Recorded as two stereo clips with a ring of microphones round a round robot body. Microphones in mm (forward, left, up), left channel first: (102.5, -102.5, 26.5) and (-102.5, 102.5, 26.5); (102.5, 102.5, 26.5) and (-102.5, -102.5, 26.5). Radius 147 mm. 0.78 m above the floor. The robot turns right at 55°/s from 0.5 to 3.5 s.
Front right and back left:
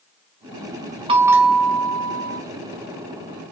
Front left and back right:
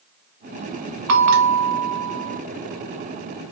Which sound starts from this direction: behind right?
A bell, at 1.1 s.